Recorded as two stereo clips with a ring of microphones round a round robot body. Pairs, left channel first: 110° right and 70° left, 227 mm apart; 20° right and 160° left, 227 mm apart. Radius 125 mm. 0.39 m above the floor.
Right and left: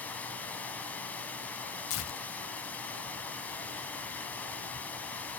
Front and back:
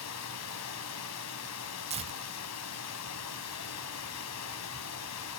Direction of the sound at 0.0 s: 30° right.